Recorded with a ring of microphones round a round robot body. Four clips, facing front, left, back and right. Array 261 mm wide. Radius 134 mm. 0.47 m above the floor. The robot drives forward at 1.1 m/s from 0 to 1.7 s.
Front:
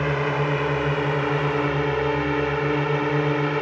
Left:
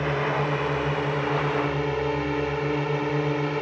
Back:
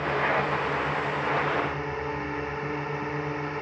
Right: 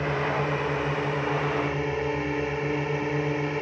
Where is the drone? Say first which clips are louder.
Left 1 dB, front 2 dB; 5° left; by 3.6 s 10° left.